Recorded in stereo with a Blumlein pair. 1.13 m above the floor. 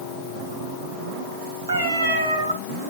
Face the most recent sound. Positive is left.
turn(degrees=-65)